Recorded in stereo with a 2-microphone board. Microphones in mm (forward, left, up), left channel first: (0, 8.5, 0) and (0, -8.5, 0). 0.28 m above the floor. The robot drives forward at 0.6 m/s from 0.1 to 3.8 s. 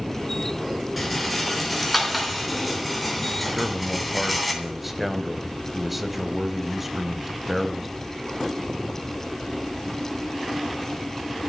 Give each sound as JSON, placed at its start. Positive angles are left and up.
{"t": 1.0, "sound": "a rattle", "side_deg": 0, "distance_m": 4.0}
{"t": 3.5, "sound": "a man speaking", "side_deg": -5, "distance_m": 1.1}